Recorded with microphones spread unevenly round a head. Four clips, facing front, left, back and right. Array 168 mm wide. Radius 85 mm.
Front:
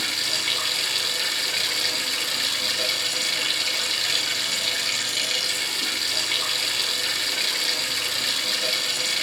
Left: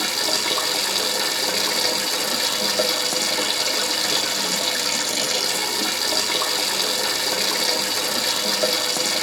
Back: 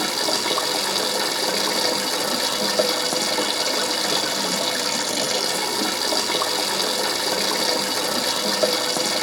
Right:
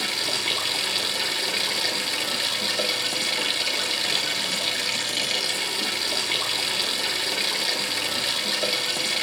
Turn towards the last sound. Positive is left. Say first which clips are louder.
# left 4 dB, back 9 dB
turn(degrees=165)